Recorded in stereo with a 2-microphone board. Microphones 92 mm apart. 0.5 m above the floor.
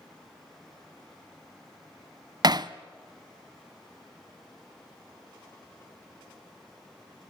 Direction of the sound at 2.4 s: 50° right (ahead or behind).